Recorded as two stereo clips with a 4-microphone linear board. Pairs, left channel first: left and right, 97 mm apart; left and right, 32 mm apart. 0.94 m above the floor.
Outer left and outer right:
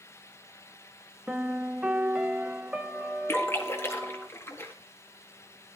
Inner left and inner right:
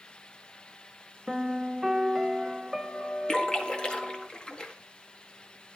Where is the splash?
25° left (ahead or behind), 1.9 m.